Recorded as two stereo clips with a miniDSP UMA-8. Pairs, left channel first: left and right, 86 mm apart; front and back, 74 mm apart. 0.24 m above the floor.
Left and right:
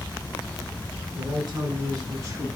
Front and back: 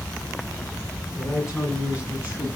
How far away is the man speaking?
About 2.5 m.